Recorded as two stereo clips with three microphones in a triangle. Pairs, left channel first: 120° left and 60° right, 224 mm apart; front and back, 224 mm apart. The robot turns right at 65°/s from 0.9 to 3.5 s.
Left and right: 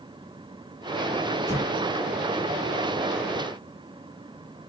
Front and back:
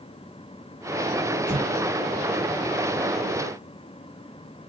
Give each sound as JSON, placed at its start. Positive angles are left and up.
{"t": 1.5, "sound": "an explosion", "azimuth_deg": -120, "distance_m": 1.7}